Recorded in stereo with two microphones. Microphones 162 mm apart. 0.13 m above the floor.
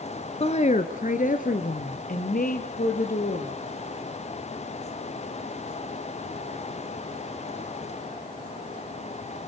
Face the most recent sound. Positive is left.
turn(degrees=60)  # may be behind; listen again after turning